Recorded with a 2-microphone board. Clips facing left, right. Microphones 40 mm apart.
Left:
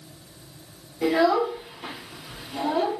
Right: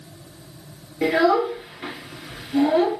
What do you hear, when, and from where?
1.0 s a child speaking: 60° right (ahead or behind), 2 m